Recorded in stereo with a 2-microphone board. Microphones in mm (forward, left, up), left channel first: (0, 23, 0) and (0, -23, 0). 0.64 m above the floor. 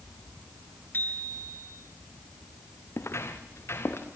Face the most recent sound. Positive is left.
turn(degrees=60)  # may be behind; listen again after turning